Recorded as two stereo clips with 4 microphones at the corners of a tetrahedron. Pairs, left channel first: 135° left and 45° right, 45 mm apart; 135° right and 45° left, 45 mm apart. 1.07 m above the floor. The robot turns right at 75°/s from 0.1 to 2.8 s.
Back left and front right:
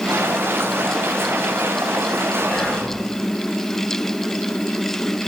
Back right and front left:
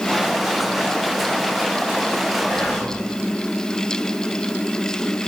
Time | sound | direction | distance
2.5 | whispering | straight behind | 1.5 m